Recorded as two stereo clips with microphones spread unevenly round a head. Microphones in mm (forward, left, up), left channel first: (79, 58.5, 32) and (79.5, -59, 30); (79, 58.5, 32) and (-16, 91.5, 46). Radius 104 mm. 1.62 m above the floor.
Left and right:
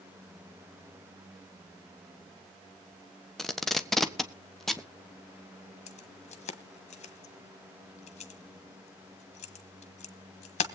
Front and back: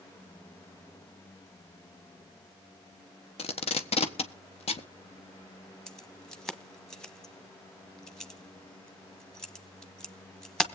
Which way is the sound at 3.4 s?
Straight ahead.